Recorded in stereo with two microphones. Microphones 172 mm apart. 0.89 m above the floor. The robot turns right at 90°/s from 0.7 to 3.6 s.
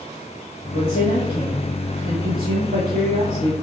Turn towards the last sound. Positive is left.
turn(degrees=5)